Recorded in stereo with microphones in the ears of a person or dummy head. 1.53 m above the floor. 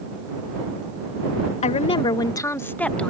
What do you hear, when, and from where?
1.6 s a woman speaking: 35° left (ahead or behind); by 3.1 s centre (ahead or behind)